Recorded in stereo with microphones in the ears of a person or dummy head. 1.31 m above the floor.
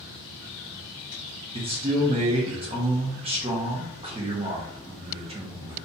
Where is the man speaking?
25° right (ahead or behind), 0.6 m.